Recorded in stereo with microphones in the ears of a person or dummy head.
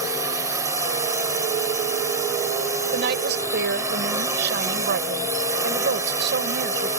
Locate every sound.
0.0 s a drone: 20° right (ahead or behind)
2.9 s a woman speaking: 60° right (ahead or behind)